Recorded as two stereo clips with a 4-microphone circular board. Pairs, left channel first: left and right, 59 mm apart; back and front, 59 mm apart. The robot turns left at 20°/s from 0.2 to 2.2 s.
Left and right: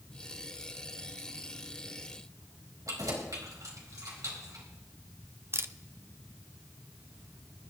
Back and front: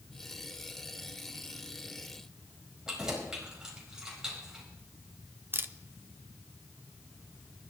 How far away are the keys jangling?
About 4 m.